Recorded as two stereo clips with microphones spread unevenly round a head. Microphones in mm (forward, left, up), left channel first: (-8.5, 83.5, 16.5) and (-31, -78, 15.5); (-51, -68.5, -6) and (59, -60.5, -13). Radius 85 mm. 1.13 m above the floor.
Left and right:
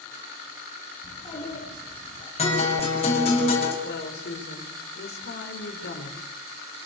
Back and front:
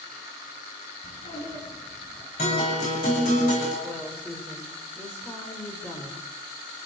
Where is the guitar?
135° left, 8.5 m.